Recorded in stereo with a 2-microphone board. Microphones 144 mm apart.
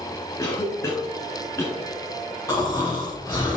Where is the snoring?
25° left (ahead or behind), 3.5 m.